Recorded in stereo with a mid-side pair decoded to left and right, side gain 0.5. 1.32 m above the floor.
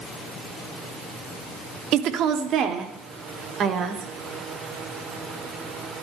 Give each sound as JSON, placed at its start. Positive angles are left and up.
{"t": 1.9, "sound": "a woman speaking", "azimuth_deg": -70, "distance_m": 2.0}